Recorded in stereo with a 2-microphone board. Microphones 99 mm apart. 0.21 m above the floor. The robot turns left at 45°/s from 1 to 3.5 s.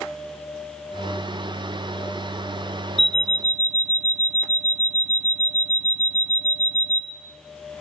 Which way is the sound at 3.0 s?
Centre (ahead or behind).